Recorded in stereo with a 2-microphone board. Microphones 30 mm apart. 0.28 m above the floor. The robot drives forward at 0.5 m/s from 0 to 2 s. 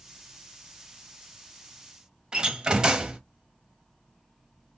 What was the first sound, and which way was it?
A door slam, 30° right (ahead or behind).